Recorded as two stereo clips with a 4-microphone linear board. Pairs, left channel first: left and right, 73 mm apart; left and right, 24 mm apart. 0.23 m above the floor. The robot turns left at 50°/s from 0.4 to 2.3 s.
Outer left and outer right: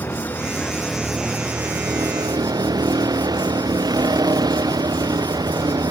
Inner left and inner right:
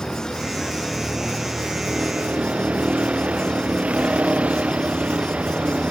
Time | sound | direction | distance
0.0 | a vehicle | 30° left | ?